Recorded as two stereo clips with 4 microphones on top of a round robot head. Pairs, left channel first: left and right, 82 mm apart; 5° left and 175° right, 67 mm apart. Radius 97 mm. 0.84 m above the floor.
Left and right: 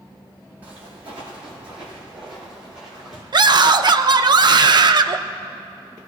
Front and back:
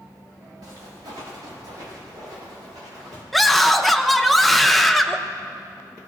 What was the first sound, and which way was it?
Footsteps, 160° right.